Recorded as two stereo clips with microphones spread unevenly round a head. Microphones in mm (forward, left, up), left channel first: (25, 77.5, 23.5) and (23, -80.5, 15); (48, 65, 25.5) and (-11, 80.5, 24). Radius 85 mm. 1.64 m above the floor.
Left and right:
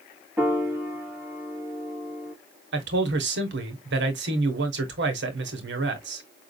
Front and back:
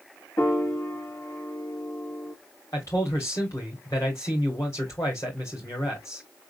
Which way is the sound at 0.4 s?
15° right.